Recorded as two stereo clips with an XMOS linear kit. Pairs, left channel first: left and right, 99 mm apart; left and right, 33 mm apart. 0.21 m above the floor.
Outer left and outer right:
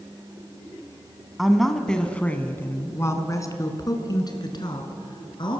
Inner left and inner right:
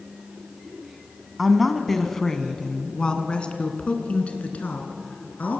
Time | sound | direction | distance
1.4 | a woman speaking | centre (ahead or behind) | 1.9 m